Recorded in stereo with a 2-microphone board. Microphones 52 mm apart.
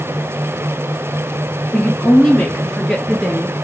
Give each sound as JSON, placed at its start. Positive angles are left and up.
{"t": 1.7, "sound": "a woman speaking", "side_deg": 15, "distance_m": 1.5}